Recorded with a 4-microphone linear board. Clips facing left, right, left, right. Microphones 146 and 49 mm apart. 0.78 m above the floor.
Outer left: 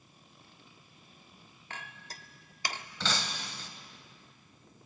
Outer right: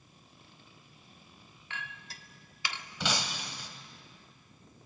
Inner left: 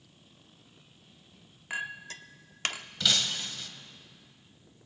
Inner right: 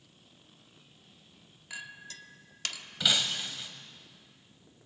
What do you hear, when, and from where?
1.7 s a clink: 40° left (ahead or behind), 0.8 m
3.0 s breaking glass: 15° right (ahead or behind), 1.4 m